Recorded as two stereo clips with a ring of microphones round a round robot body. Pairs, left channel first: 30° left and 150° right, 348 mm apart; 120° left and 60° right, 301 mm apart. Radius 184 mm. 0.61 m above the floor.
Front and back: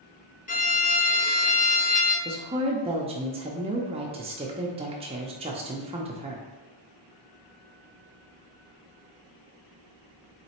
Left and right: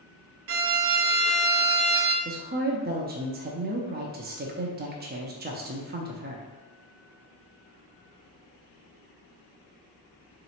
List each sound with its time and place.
0.5 s a violin: 30° right, 0.6 m
2.2 s a woman speaking: 90° right, 0.6 m